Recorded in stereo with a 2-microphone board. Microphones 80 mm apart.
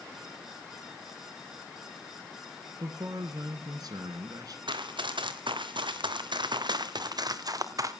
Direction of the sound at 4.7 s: 80° right.